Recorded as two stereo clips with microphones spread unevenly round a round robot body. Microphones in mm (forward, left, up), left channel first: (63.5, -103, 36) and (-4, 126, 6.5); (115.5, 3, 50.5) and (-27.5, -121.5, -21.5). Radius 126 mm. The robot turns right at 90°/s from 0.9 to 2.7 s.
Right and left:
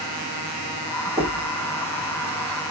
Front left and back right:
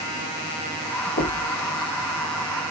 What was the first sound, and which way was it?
Knocking, 20° left.